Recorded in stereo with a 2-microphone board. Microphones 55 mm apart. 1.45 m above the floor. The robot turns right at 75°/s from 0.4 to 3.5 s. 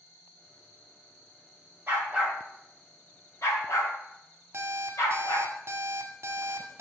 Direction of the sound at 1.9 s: 40° right (ahead or behind).